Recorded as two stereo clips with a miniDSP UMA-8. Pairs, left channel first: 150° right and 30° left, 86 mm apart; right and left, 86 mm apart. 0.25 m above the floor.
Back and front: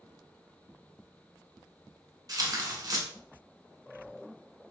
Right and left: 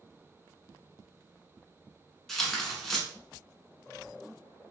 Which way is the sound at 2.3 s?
5° right.